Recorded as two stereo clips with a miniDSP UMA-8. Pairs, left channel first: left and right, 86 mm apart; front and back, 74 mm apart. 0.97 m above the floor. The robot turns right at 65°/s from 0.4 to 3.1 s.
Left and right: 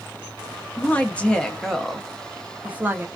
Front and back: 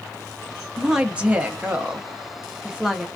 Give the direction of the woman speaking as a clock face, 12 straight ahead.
8 o'clock.